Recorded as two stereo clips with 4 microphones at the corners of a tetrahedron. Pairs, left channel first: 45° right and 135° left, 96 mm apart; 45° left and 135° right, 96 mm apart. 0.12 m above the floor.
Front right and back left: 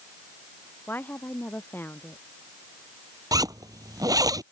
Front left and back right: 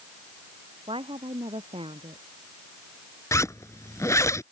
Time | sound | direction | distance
0.9 | a woman speaking | 115° right | ?
3.3 | a zipper | 95° left | ?